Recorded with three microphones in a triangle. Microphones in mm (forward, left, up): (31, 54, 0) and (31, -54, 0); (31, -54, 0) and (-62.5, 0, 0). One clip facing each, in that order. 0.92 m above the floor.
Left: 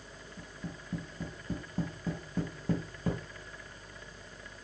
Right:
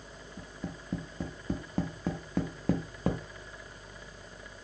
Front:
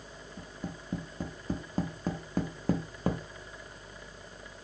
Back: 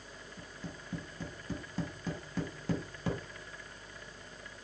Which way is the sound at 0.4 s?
75° right.